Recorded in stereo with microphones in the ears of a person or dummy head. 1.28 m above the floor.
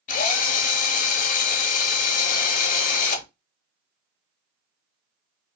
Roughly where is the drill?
Left.